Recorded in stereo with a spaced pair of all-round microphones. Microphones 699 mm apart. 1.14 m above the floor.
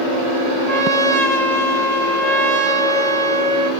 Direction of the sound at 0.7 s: 65° left (ahead or behind).